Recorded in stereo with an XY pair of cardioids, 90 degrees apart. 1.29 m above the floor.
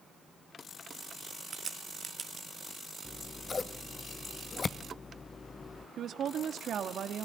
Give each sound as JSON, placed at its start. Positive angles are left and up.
{"t": 1.5, "sound": "a crack", "azimuth_deg": -50, "distance_m": 1.9}
{"t": 3.0, "sound": "scissors", "azimuth_deg": 40, "distance_m": 1.2}
{"t": 6.0, "sound": "a woman speaking", "azimuth_deg": -70, "distance_m": 2.5}